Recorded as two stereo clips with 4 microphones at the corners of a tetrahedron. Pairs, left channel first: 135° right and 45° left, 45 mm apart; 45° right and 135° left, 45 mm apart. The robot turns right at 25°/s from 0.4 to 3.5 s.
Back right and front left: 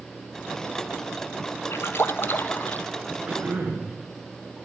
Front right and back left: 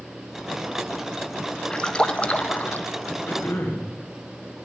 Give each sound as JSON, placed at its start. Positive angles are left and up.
{"t": 1.7, "sound": "a splash", "azimuth_deg": -115, "distance_m": 1.3}
{"t": 3.3, "sound": "throat clearing", "azimuth_deg": -10, "distance_m": 9.0}